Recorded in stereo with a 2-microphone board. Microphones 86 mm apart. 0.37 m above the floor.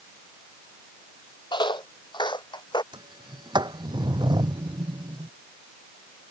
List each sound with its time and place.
1.5 s footsteps: 65° left (ahead or behind); by 2.8 s 60° left (ahead or behind)
2.9 s a sliding door: 55° right (ahead or behind)